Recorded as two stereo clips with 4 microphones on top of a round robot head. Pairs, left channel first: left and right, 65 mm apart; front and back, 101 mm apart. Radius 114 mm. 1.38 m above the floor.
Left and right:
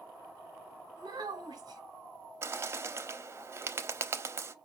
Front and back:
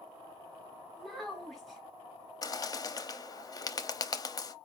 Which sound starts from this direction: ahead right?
A bird, at 2.4 s.